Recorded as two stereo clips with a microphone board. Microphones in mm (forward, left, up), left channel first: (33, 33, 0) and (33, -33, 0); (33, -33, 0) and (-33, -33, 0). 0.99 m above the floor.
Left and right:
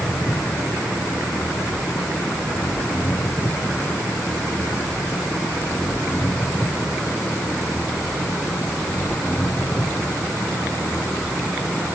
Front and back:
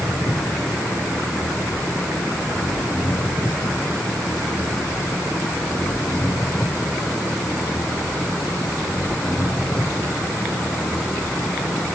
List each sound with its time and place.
0.0 s an engine running: 35° left